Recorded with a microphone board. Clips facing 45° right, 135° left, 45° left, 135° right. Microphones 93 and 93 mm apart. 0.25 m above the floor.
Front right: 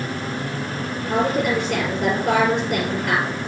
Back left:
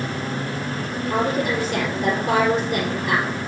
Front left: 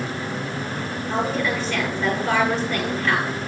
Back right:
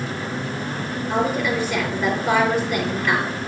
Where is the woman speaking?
55° right, 5 m.